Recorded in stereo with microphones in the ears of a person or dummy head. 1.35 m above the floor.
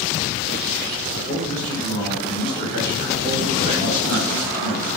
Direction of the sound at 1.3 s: 40° right (ahead or behind).